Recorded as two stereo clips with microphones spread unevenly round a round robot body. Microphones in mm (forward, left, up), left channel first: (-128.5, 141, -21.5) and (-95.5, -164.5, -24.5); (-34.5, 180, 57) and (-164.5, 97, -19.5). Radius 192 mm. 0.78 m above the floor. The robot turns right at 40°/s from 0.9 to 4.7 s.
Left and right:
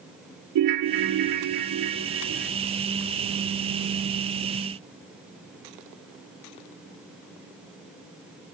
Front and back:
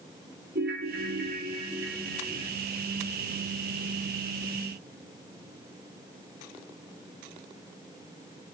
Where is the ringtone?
90° right, 0.5 m; by 2.5 s 25° right, 0.5 m.